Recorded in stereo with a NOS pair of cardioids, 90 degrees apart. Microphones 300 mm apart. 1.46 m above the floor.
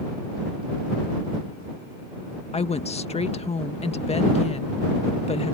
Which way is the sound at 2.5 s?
20° left.